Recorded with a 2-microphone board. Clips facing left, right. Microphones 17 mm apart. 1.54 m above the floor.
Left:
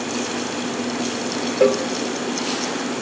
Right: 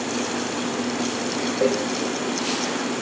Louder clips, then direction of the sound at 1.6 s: Left 5 dB; 85° left.